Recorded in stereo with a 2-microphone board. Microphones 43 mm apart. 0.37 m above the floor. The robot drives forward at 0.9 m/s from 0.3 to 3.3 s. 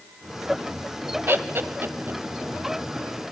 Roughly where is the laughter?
Right.